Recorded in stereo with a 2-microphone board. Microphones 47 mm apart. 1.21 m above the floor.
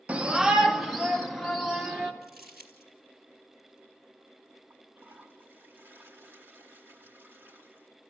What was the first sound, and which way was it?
A shout, 30° right (ahead or behind).